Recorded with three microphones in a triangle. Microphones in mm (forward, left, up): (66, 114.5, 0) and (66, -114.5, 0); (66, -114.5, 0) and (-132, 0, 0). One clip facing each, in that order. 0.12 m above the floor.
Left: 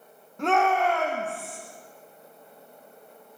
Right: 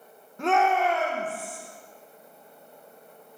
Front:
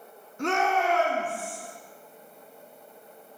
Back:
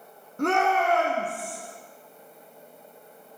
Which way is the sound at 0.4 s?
Straight behind.